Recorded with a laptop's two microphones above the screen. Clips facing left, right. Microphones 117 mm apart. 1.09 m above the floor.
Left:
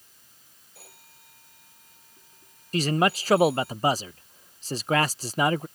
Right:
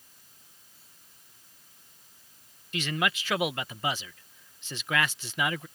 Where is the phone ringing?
85° left.